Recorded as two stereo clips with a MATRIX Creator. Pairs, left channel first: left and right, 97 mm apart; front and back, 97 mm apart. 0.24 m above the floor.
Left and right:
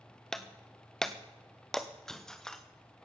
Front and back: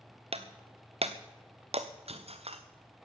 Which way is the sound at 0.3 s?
175° left.